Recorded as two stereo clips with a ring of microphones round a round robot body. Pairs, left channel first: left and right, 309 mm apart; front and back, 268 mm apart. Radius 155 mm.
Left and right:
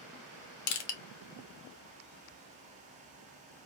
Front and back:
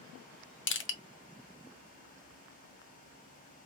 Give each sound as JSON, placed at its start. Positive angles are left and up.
{"t": 0.7, "sound": "crushing", "azimuth_deg": 50, "distance_m": 0.7}